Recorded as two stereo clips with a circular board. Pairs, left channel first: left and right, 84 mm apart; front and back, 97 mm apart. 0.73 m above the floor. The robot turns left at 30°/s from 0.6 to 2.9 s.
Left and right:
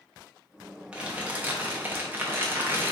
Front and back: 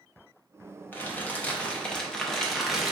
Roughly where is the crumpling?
Ahead right.